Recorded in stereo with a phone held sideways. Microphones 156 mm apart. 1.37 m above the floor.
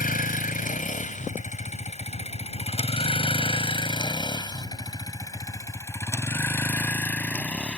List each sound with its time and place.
0.0 s a vehicle: 65° left (ahead or behind); by 7.8 s 5° left (ahead or behind)